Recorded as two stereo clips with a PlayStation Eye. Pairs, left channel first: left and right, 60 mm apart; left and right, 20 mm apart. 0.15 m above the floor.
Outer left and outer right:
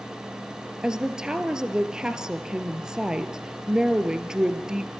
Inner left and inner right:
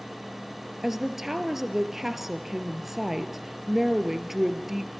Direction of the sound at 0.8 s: 10° right (ahead or behind).